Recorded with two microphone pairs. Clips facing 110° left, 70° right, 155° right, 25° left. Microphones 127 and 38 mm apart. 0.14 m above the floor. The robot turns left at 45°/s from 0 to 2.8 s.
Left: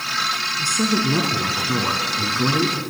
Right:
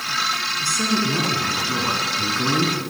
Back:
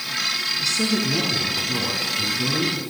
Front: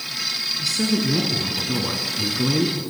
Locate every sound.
0.6 s a woman speaking: 110° left, 1.4 m; by 2.8 s 15° left, 1.4 m